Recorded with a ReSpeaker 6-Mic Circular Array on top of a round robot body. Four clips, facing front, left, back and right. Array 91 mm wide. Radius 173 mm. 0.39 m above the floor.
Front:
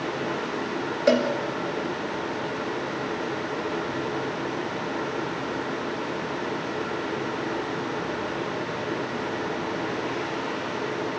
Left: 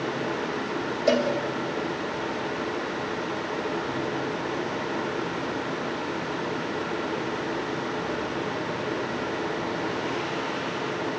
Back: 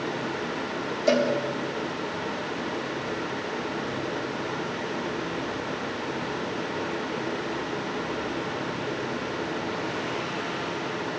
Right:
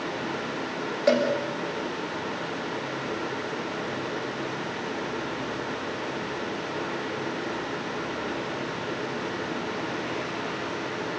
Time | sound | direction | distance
1.1 | a cowbell | 35° right | 5.5 m